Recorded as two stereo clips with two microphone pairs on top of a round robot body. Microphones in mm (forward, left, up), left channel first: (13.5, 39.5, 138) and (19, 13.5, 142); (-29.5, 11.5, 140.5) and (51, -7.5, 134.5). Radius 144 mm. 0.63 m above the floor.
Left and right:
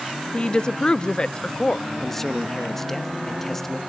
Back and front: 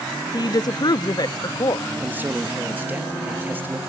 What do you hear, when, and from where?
0.3 s a woman speaking: 145° left, 0.8 m
2.0 s a man speaking: 40° left, 1.6 m